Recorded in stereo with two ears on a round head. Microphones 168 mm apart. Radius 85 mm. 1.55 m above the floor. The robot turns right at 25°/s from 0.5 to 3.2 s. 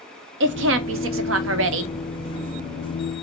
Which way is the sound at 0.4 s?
105° right.